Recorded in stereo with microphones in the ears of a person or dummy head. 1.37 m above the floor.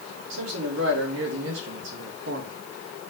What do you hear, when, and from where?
0.3 s a man speaking: 80° right, 2.5 m; by 2.5 s 50° right (ahead or behind), 2 m